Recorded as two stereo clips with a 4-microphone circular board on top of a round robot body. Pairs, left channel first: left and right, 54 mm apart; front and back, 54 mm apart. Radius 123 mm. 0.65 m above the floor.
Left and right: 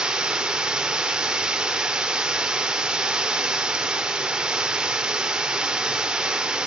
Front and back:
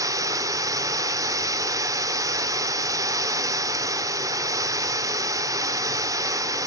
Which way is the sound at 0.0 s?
165° right.